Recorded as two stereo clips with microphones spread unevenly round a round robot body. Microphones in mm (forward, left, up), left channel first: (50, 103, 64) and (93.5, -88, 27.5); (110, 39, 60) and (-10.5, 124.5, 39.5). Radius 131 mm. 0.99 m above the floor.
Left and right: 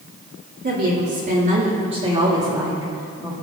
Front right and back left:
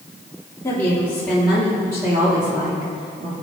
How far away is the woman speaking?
About 2.5 m.